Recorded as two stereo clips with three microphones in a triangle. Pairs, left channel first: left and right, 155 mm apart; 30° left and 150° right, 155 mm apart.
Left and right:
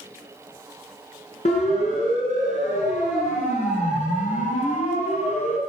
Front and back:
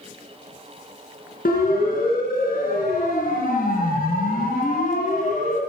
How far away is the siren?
About 7 m.